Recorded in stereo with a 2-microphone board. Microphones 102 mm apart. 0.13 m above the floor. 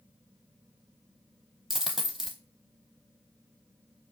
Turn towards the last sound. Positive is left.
turn(degrees=0)  # may be behind; listen again after turning